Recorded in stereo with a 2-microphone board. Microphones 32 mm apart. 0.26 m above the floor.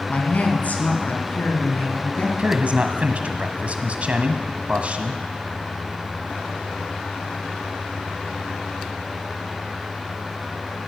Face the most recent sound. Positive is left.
turn(degrees=-45)  # may be behind; listen again after turning